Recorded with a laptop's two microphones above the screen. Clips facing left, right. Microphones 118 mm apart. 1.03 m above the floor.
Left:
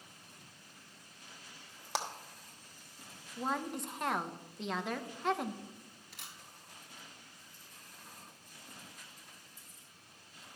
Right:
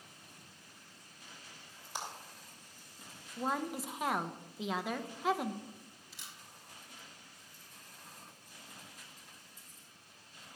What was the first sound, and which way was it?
A clap, 85° left.